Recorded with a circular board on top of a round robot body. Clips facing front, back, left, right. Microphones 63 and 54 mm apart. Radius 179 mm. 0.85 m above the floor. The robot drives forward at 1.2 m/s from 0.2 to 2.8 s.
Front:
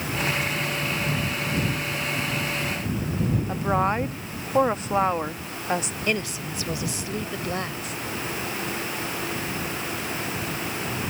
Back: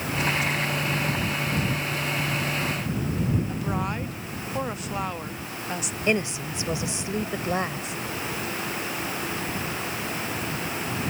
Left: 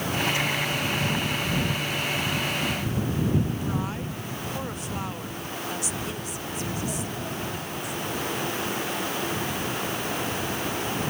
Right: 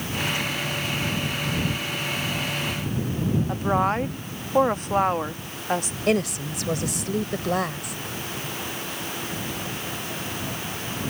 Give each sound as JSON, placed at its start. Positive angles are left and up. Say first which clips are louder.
{"t": 3.5, "sound": "a woman speaking", "louder": "front 6 dB, right 7 dB", "azimuth_deg": -55}
{"t": 6.1, "sound": "a woman speaking", "louder": "back 3 dB, right 10 dB", "azimuth_deg": -110}